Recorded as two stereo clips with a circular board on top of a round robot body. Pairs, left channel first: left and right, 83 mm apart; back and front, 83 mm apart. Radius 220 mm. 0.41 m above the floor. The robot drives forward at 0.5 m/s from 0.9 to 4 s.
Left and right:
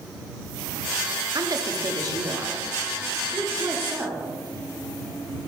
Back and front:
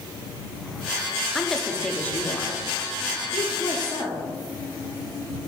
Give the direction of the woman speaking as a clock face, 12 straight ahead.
3 o'clock.